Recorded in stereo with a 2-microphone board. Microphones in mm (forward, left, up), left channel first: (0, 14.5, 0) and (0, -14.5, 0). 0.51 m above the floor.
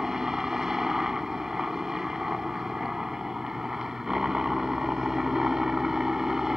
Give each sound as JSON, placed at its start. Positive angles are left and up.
{"t": 0.0, "sound": "a helicopter", "side_deg": -20}